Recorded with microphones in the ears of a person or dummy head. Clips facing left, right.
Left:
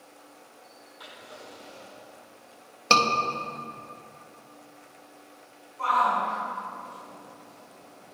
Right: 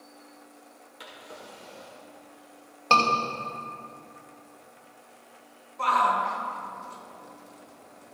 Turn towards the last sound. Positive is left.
turn(degrees=-70)  # may be behind; listen again after turning